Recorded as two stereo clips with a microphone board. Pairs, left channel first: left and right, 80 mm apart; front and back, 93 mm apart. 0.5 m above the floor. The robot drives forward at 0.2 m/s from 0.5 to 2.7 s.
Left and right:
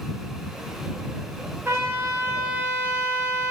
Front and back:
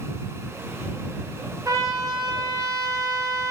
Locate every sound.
1.6 s a trumpet: 140° right, 2.0 m; by 3.5 s 145° right, 2 m